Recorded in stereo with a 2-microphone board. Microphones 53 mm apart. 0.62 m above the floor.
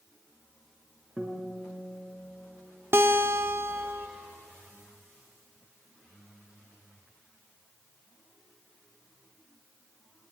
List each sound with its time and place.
1.2 s a guitar: 20° right (ahead or behind), 3.5 m
2.9 s a guitar: 50° right (ahead or behind), 1.2 m